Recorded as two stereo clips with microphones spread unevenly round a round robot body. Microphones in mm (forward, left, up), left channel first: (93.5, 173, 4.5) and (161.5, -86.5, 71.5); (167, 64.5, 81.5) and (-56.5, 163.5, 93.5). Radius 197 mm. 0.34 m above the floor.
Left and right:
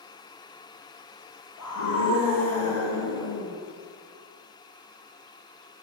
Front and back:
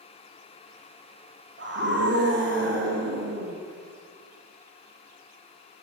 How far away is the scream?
About 6 m.